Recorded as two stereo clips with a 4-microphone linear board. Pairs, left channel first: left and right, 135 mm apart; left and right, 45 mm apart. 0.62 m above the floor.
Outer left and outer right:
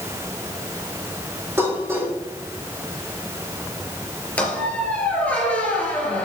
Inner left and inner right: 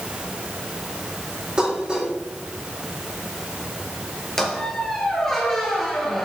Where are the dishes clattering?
15° right (ahead or behind), 6 m.